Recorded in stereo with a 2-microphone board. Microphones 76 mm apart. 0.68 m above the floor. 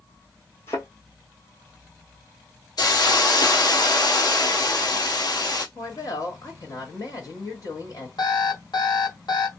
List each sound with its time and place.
0.7 s a thud: 35° left (ahead or behind), 2.5 m
2.8 s a hiss: 60° left (ahead or behind), 1.8 m
5.8 s a woman speaking: 55° left (ahead or behind), 1.4 m
8.2 s an alarm clock: 70° left (ahead or behind), 1.6 m